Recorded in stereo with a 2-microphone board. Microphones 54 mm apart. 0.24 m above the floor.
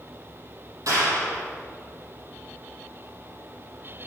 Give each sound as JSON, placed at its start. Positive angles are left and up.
{"t": 0.9, "sound": "a clap", "side_deg": -75, "distance_m": 6.0}